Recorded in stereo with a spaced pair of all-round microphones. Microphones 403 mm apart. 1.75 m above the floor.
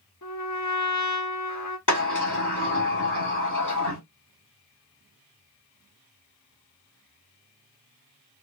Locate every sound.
0.2 s a trumpet: 45° left (ahead or behind), 0.8 m
1.9 s a sliding door: 45° left (ahead or behind), 1.9 m